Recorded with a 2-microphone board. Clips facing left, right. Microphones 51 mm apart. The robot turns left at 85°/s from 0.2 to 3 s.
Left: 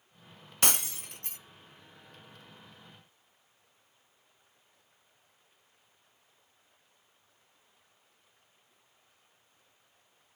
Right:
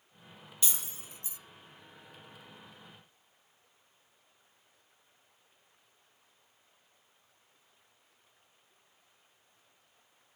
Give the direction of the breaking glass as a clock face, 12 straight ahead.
8 o'clock.